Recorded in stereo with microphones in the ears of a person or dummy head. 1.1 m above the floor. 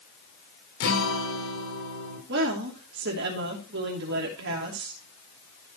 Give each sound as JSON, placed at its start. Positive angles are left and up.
{"t": 0.8, "sound": "a guitar", "side_deg": 70, "distance_m": 3.5}
{"t": 2.3, "sound": "a woman speaking", "side_deg": -60, "distance_m": 2.5}